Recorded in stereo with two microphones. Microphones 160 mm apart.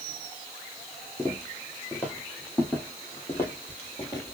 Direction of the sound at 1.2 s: 5° left (ahead or behind).